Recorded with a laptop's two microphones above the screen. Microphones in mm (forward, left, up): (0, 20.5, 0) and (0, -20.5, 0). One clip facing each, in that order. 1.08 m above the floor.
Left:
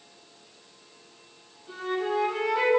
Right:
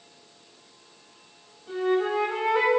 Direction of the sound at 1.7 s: 25° right (ahead or behind).